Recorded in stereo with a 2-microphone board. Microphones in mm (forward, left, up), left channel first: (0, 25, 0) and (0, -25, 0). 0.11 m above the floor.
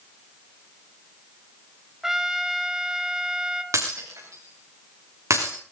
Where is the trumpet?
10° right (ahead or behind), 1.1 m.